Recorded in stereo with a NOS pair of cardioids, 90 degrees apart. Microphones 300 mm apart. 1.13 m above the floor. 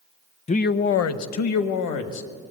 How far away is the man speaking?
About 0.6 m.